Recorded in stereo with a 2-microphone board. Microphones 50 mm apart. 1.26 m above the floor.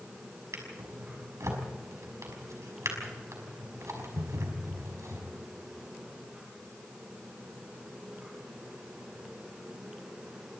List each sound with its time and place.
0.5 s a drawer: 75° right (ahead or behind), 5.5 m